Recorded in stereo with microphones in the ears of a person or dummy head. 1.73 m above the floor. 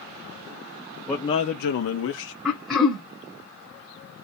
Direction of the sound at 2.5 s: 5° left (ahead or behind).